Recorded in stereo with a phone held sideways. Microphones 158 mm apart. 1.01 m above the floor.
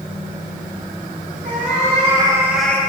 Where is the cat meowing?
55° right (ahead or behind), 1.4 m; by 2.8 s 15° left (ahead or behind), 0.7 m.